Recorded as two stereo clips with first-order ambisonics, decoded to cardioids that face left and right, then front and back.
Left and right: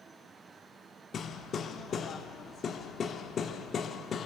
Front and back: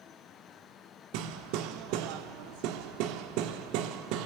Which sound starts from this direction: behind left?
Hammering, at 1.1 s.